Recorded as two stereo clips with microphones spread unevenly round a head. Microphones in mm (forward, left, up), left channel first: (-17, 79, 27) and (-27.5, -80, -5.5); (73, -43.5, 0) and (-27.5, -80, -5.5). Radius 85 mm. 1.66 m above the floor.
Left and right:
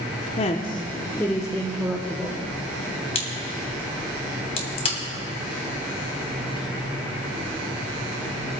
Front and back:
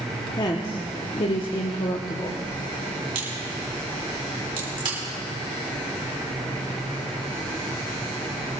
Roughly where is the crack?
Behind left.